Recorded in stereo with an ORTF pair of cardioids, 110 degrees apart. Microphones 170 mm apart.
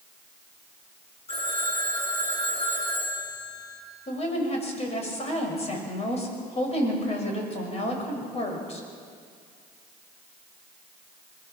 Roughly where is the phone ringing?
Ahead left.